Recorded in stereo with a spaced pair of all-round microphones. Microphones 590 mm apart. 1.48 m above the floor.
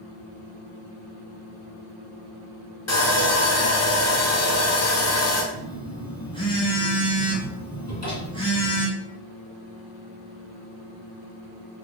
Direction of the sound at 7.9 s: 25° left (ahead or behind).